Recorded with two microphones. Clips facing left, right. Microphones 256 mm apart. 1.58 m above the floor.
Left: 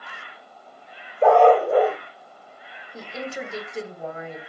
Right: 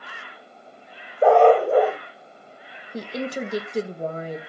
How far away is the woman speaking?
About 0.8 m.